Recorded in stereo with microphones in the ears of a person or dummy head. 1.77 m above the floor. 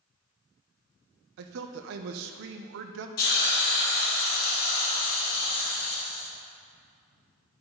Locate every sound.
1.4 s a man speaking: 65° right (ahead or behind), 0.6 m
3.2 s a hiss: 50° left (ahead or behind), 2.0 m